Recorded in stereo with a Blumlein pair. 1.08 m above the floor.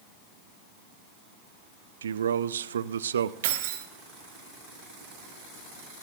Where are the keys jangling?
55° right, 1.5 m.